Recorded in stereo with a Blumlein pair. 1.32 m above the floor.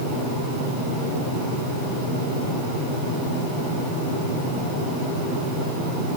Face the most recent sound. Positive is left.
No sound to turn to.